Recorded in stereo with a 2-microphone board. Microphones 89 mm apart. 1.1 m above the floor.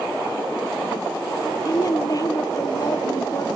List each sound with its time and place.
1.6 s a woman speaking: 45° left (ahead or behind), 0.9 m